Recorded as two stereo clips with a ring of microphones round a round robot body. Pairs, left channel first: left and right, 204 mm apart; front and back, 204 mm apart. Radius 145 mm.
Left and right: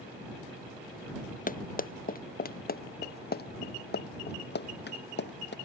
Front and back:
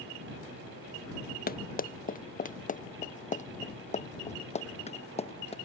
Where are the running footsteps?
45° left; by 5.5 s 60° left.